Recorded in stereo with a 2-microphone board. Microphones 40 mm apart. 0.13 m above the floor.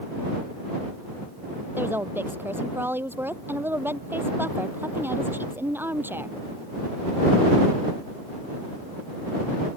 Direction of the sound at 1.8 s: 60° right (ahead or behind).